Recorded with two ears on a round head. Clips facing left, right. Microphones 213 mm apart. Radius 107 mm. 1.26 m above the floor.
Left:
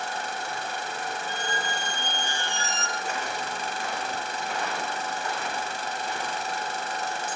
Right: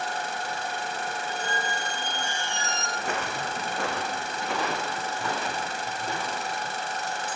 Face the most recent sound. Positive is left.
turn(degrees=-70)  # may be behind; listen again after turning